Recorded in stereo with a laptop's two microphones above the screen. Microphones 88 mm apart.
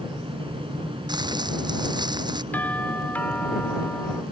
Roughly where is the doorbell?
Centre.